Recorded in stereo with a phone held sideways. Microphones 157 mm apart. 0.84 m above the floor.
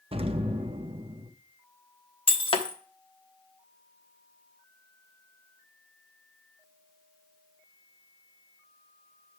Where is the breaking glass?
35° left (ahead or behind), 0.9 m.